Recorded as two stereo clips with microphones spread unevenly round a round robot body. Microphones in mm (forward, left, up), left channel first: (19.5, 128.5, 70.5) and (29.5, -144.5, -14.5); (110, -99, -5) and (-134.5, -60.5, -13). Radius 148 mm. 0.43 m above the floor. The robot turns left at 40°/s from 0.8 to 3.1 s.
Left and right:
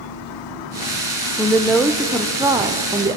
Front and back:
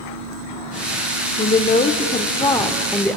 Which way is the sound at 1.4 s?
20° right.